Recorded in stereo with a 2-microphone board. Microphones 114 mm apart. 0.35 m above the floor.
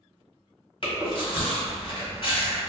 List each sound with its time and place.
0.8 s chewing: 50° left (ahead or behind), 1.5 m